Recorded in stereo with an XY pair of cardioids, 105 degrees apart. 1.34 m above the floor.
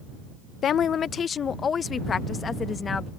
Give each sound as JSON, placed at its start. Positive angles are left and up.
{"t": 0.6, "sound": "a woman speaking", "azimuth_deg": 60}